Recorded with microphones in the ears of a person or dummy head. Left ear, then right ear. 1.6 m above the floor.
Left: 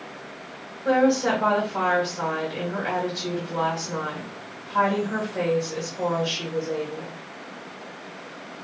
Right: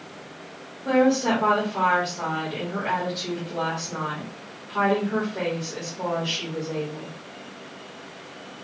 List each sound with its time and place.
0.8 s a woman speaking: 80° left, 1.8 m